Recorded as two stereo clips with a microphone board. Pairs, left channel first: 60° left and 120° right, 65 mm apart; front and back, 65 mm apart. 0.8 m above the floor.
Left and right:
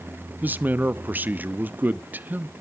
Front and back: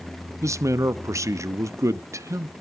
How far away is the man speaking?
About 0.7 m.